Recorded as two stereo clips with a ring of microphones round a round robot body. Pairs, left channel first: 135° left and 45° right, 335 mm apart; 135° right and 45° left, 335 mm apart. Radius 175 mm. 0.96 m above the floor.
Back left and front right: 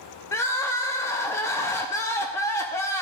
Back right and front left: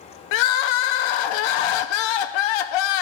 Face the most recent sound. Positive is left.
turn(degrees=-140)